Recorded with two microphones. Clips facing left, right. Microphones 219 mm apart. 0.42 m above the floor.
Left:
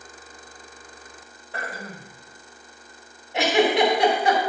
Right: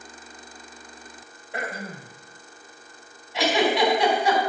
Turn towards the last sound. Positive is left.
turn(degrees=60)  # may be behind; listen again after turning